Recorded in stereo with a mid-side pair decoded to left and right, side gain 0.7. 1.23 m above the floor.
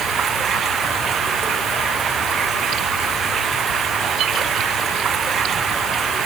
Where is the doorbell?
I don't hear a doorbell.